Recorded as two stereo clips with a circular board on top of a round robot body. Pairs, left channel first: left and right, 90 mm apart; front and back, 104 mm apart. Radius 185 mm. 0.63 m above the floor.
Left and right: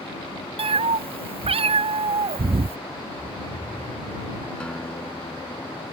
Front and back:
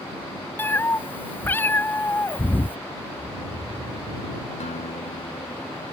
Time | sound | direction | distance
0.6 | a cat meowing | 70° right | ?
3.1 | snoring | 165° left | ?
4.6 | a guitar | 10° left | ?